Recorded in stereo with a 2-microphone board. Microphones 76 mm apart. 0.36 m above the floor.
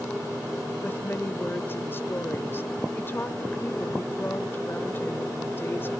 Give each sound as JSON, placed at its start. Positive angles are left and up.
{"t": 0.8, "sound": "a woman speaking", "side_deg": 30, "distance_m": 1.5}